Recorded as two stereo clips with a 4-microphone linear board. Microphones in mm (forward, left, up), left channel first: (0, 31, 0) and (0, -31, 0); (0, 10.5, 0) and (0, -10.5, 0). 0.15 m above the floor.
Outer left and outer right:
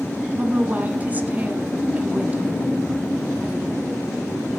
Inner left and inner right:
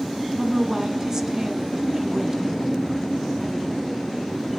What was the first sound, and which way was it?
A woman speaking, 25° right (ahead or behind).